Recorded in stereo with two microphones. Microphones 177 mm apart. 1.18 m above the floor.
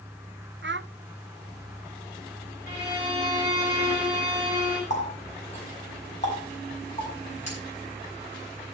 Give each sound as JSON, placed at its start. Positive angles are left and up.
{"t": 0.6, "sound": "a child speaking", "side_deg": -75, "distance_m": 0.6}
{"t": 2.7, "sound": "a violin", "side_deg": 55, "distance_m": 6.5}
{"t": 4.9, "sound": "a running tap", "side_deg": 40, "distance_m": 5.5}